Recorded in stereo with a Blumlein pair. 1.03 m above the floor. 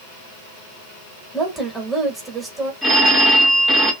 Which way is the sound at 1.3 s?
10° right.